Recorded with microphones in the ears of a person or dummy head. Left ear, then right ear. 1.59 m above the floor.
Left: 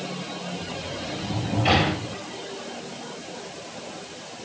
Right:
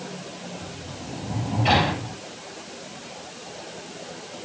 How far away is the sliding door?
About 8.5 m.